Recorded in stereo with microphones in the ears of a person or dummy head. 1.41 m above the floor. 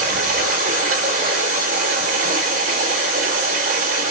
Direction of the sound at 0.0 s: 65° right (ahead or behind).